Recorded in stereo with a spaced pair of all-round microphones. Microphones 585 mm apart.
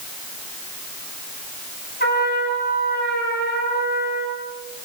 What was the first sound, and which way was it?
A trumpet, 15° left (ahead or behind).